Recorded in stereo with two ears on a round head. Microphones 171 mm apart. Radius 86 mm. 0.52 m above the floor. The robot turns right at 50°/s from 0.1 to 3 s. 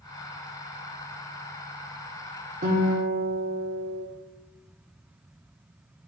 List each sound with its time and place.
2.6 s a guitar: 40° right (ahead or behind), 1.3 m; by 4.0 s 35° right (ahead or behind), 1.3 m